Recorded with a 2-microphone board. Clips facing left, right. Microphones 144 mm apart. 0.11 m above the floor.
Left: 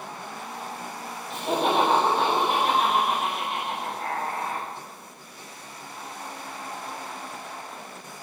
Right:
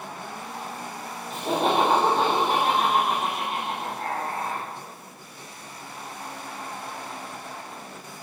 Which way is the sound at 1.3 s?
35° right (ahead or behind).